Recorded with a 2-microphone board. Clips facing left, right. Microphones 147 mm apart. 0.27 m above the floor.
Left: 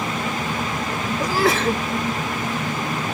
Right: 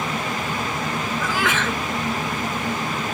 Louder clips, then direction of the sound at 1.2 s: Left 6 dB; 40° left (ahead or behind).